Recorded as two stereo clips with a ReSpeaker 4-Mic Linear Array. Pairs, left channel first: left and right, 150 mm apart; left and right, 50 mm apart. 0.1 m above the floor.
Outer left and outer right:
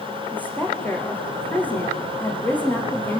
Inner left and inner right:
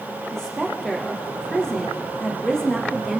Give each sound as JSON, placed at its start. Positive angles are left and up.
{"t": 0.3, "sound": "a woman speaking", "side_deg": 10, "distance_m": 6.5}